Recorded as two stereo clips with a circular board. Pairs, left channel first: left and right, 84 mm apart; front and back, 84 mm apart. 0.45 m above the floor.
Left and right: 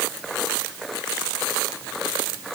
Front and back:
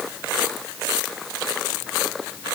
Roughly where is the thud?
No thud in this recording.